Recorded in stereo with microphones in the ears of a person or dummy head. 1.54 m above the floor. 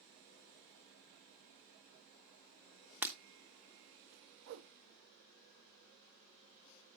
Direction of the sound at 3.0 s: 5° right (ahead or behind).